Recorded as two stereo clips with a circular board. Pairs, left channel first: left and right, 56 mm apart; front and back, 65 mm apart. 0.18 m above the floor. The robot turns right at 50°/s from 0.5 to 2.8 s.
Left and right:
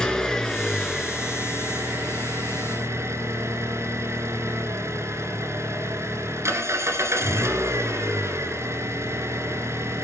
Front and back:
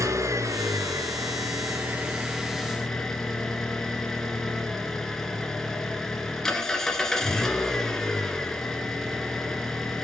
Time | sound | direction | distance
0.0 | an engine running | 165° left | 1.8 m